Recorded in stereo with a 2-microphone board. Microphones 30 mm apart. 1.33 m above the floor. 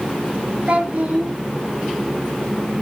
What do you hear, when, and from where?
0.7 s a child speaking: 55° right (ahead or behind), 1.5 m